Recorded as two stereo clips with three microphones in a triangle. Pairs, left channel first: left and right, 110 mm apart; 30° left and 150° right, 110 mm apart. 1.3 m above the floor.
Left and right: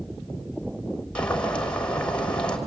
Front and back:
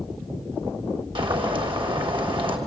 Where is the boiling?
170° left, 3 m.